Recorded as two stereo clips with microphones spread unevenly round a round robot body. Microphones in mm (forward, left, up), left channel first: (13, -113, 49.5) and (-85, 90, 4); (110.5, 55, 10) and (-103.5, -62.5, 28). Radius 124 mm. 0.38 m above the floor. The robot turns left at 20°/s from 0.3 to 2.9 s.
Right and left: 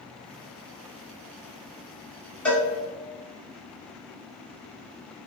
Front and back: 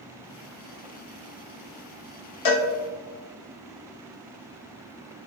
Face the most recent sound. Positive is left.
turn(degrees=10)